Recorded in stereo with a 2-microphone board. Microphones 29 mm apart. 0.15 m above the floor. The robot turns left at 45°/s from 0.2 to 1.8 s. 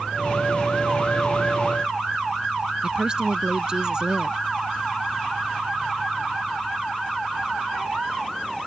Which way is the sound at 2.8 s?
30° right (ahead or behind).